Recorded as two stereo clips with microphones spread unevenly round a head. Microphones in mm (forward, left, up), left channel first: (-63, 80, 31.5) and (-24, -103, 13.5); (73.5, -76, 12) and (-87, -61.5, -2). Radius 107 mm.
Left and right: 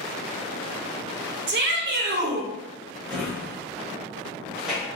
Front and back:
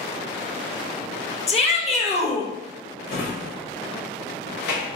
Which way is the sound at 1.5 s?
55° right.